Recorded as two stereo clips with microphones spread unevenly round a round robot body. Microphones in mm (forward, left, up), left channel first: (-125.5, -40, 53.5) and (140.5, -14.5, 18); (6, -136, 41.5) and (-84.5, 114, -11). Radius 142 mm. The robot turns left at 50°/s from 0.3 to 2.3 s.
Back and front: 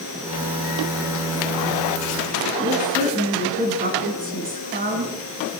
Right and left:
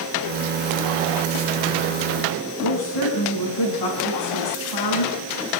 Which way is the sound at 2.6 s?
55° right.